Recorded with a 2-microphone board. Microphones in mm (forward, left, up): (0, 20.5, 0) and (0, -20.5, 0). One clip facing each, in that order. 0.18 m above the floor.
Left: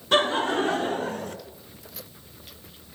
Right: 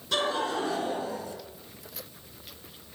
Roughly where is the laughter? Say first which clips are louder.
Left 6 dB; left.